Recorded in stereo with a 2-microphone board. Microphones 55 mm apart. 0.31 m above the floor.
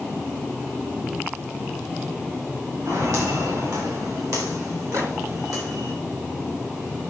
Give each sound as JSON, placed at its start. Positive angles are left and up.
{"t": 2.9, "sound": "footsteps", "side_deg": -65, "distance_m": 7.5}
{"t": 4.9, "sound": "a microwave", "side_deg": -50, "distance_m": 2.5}